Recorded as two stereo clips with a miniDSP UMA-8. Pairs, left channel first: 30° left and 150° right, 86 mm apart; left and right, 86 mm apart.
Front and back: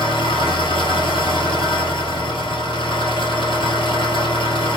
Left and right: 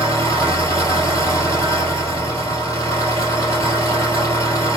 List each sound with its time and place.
0.0 s an engine running: 40° left, 2 m